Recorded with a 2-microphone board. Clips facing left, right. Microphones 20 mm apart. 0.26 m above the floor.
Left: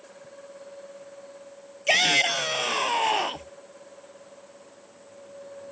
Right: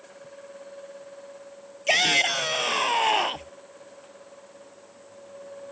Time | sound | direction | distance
1.9 | a shout | 5° left (ahead or behind) | ?